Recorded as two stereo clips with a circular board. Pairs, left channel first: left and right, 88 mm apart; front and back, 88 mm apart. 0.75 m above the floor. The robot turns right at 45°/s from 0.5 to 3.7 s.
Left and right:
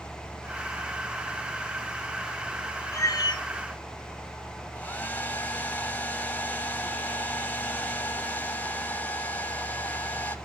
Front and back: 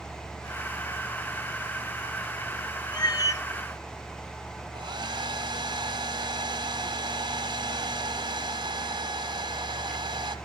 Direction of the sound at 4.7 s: 160° left.